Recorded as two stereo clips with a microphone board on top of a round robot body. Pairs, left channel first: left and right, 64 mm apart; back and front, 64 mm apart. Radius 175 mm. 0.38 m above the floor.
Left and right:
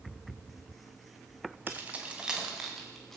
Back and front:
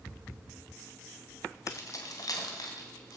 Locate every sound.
1.7 s keys jangling: 150° right, 2.5 m; by 3.2 s 175° left, 3.5 m